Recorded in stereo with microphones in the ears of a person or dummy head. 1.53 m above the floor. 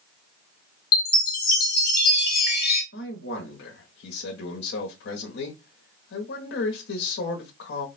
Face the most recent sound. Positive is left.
turn(degrees=65)  # may be behind; listen again after turning